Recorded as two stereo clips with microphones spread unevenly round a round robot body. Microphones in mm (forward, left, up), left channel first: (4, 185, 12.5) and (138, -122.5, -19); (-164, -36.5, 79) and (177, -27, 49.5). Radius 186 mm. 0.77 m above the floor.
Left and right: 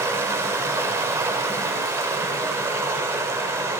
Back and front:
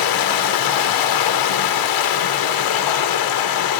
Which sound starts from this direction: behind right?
Running water, at 0.0 s.